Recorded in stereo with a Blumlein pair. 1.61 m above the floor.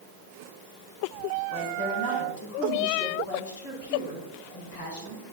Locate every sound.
1.5 s a woman speaking: 50° left, 4 m